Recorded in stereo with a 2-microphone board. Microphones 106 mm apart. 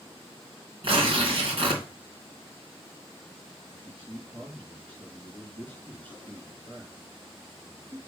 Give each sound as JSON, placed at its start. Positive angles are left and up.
{"t": 0.8, "sound": "tearing paper", "side_deg": -60, "distance_m": 2.5}
{"t": 3.7, "sound": "a man speaking", "side_deg": -50, "distance_m": 3.5}